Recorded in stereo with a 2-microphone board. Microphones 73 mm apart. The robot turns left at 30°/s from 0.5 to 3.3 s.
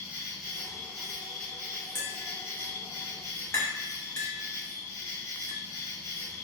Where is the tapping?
30° left (ahead or behind), 0.9 m; by 5.6 s 40° left (ahead or behind), 0.9 m.